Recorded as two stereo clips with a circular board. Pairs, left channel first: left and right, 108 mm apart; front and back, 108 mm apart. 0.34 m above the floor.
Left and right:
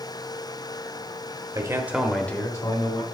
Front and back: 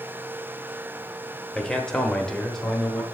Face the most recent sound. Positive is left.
turn(degrees=85)